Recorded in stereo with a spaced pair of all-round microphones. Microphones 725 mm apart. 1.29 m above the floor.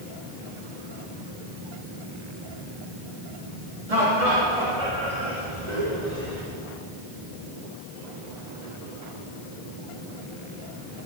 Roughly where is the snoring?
I don't hear snoring.